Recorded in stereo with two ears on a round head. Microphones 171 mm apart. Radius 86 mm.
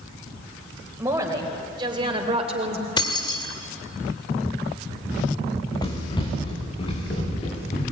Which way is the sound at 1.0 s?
15° right (ahead or behind).